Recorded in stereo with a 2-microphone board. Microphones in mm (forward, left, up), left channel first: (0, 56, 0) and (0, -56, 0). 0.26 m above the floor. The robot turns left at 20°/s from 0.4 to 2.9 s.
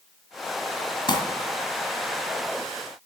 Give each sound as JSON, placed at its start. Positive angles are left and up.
{"t": 1.1, "sound": "crumpling", "side_deg": 40, "distance_m": 2.0}